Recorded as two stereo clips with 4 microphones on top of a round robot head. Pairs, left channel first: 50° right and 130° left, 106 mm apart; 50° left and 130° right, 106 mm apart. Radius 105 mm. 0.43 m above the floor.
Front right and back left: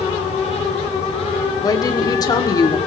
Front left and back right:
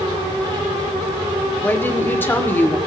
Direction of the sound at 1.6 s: 15° right.